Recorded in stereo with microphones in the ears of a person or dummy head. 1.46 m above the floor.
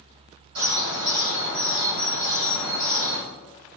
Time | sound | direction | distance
0.6 | a bird | 65° right (ahead or behind) | 3 m